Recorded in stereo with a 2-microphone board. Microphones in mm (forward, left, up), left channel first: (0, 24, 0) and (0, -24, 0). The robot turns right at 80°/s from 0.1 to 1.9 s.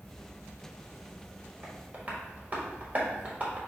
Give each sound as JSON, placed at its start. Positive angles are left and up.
{"t": 0.0, "sound": "an insect", "azimuth_deg": 40, "distance_m": 0.8}
{"t": 1.6, "sound": "tapping", "side_deg": -30, "distance_m": 1.4}